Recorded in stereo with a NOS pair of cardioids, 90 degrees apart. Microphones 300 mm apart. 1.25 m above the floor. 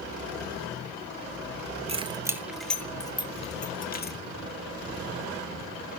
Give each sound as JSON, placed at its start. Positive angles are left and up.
{"t": 1.9, "sound": "keys jangling", "azimuth_deg": -20, "distance_m": 1.5}